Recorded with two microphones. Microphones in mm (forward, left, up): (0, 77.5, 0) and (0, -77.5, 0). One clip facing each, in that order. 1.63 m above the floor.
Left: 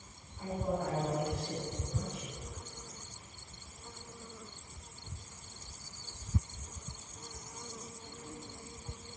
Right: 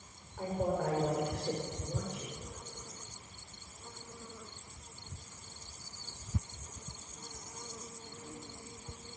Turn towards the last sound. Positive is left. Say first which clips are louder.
# right 2 dB
turn(degrees=-70)  # may be behind; listen again after turning